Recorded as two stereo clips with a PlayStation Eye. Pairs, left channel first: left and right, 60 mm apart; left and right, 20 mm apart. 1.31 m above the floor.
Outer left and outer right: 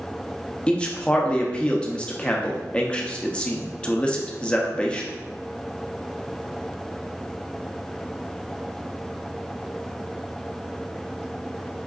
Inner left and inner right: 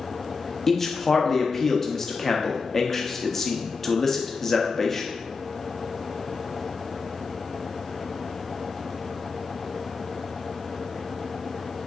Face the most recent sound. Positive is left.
turn(degrees=15)  # may be behind; listen again after turning